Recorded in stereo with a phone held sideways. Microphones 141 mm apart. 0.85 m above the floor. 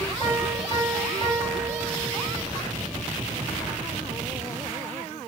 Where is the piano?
40° left (ahead or behind), 2 m.